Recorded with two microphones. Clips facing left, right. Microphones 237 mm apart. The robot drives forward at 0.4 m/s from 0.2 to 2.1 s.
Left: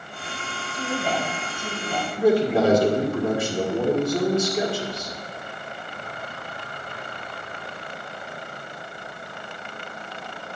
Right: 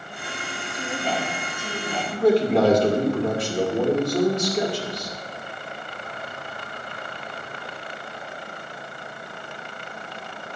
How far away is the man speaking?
About 1.7 m.